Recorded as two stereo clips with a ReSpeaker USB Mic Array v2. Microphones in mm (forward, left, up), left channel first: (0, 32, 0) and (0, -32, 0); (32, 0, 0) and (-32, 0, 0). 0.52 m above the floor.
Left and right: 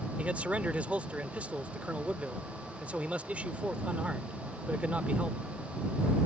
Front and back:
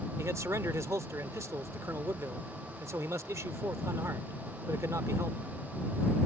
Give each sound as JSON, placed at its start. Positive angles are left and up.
{"t": 0.2, "sound": "a man speaking", "azimuth_deg": -150}